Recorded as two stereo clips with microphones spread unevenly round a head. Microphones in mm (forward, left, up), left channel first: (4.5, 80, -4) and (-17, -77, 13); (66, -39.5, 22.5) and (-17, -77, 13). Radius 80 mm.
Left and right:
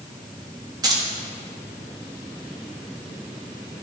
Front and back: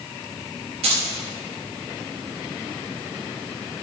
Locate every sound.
0.8 s keys jangling: 165° right, 1.2 m